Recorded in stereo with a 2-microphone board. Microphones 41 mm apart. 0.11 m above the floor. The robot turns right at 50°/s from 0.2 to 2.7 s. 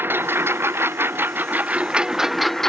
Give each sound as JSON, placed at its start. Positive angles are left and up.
{"t": 0.0, "sound": "a lawn mower", "azimuth_deg": -115}